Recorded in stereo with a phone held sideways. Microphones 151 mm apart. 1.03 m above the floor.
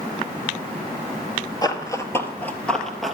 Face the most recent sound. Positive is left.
turn(degrees=0)  # may be behind; listen again after turning